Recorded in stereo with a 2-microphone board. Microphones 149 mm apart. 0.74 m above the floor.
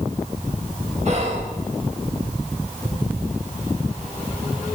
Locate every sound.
1.1 s whispering: 50° right (ahead or behind), 1.2 m